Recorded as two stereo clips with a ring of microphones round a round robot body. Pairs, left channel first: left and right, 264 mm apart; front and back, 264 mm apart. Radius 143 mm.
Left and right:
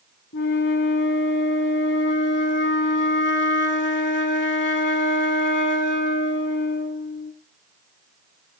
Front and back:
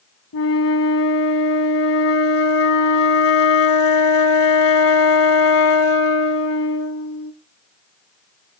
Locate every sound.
0.3 s a flute: 35° left, 0.9 m